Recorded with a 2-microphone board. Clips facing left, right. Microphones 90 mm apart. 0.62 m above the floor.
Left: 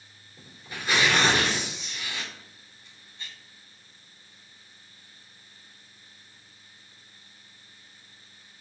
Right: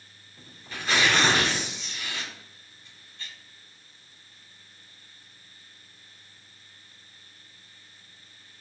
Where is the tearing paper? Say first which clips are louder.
Even; 15° left (ahead or behind), 2 m.